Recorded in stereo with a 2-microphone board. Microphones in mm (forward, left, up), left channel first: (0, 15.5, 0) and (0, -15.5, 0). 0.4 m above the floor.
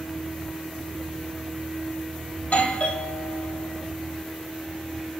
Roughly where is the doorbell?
Left.